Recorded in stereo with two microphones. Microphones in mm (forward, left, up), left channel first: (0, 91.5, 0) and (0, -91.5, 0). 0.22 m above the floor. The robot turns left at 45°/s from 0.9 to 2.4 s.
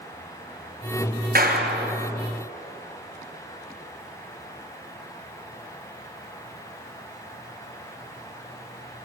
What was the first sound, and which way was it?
A clap, 55° right (ahead or behind).